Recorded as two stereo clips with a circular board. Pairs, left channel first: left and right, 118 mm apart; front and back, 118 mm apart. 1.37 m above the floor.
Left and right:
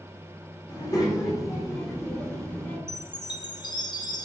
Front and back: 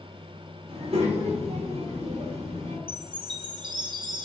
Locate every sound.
0.7 s a child speaking: 145° left, 2 m; by 2.8 s 160° left, 3.5 m
2.9 s a chime: 135° left, 1.1 m